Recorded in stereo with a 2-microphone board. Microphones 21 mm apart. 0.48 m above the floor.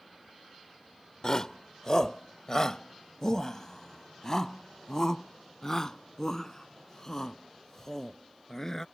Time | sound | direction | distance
1.2 | a shout | 30° left (ahead or behind) | ?